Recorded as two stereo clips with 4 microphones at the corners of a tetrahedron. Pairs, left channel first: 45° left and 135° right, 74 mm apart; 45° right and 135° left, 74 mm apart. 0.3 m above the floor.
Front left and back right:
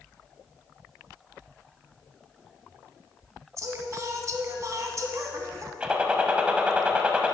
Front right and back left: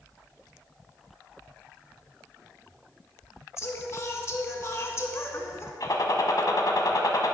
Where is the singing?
95° right, 1.1 m.